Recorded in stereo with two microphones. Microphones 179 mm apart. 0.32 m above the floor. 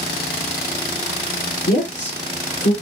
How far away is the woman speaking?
About 5 m.